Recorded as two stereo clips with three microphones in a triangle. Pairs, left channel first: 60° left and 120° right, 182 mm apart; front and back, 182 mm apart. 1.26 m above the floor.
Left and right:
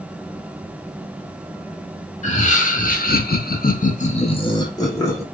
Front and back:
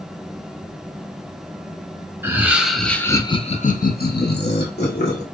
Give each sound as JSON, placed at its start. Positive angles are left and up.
{"t": 2.2, "sound": "laughter", "azimuth_deg": 105, "distance_m": 0.9}